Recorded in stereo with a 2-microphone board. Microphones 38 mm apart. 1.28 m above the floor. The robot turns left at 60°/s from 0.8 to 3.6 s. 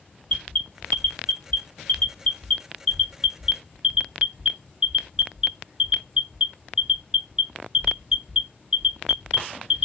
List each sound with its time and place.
0.3 s an alarm: 20° left (ahead or behind), 1.1 m; by 9.9 s 15° right (ahead or behind), 1.1 m